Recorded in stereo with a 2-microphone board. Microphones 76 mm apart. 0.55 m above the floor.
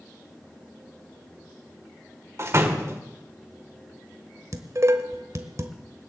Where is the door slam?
40° right (ahead or behind), 1.6 m.